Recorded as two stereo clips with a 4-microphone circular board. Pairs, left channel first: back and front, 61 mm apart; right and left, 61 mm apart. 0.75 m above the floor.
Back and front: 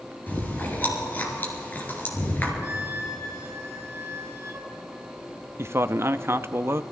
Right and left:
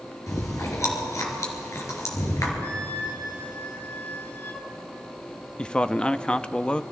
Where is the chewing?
125° right, 3.5 m.